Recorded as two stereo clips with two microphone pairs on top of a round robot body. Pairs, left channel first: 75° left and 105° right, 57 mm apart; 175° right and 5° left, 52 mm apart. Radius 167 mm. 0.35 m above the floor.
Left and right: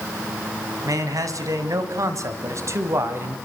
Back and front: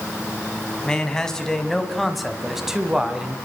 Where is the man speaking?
100° right, 5.5 m; by 3.4 s 65° right, 4.5 m.